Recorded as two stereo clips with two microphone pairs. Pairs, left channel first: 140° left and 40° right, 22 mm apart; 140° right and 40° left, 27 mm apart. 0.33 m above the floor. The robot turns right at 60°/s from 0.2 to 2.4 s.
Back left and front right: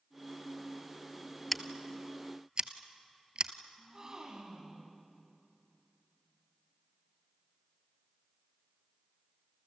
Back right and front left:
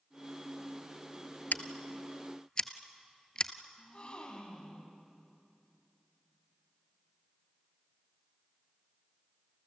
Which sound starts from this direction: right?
A gasp, at 3.8 s.